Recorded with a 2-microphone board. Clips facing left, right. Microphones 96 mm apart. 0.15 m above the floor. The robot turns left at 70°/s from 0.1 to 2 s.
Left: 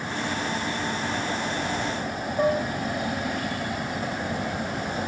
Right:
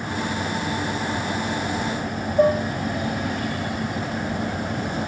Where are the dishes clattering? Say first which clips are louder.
Right 5 dB; 30° right (ahead or behind), 5 m.